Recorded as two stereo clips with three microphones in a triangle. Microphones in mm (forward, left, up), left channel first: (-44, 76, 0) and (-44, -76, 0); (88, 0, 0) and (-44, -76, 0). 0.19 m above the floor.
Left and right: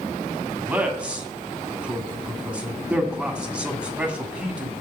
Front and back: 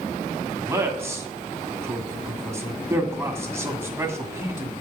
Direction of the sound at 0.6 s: 155° right.